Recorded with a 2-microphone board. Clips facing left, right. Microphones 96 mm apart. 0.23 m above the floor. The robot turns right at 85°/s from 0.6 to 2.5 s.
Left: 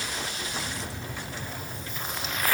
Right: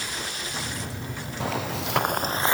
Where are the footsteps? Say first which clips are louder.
Right 9 dB; 75° right (ahead or behind), 2.5 m; by 2.5 s 20° right (ahead or behind), 1.6 m.